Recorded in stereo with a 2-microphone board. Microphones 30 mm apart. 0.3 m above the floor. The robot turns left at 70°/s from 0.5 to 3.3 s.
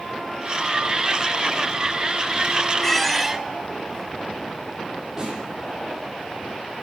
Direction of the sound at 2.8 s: 25° left.